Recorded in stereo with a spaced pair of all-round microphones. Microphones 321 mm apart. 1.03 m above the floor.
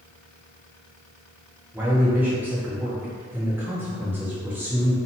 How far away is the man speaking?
About 0.6 m.